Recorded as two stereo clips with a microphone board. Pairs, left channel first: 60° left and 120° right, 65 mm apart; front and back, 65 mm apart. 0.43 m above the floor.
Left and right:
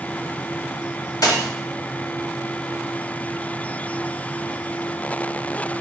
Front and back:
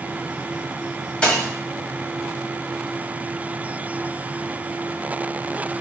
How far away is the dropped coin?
About 1.3 m.